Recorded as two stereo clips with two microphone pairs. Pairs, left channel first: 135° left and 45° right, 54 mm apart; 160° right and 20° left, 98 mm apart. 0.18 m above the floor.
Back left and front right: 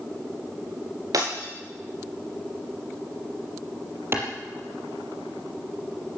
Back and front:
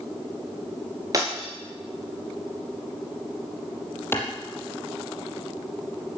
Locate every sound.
1.1 s breaking glass: 40° right, 8.5 m
4.1 s a clap: 95° right, 5.5 m